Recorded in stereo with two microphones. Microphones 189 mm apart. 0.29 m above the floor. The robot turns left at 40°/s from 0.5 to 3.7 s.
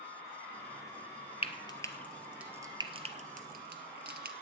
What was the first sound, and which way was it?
Frying, 30° left (ahead or behind).